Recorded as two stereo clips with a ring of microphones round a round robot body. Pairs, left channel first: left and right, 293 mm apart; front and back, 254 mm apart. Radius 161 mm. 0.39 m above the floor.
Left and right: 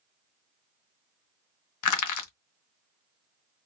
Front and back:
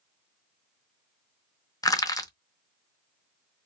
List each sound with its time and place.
1.8 s crushing: 75° left, 1.0 m